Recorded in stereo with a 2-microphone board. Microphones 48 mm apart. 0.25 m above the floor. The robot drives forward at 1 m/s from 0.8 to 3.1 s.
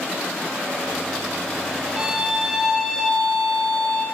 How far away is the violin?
About 0.8 m.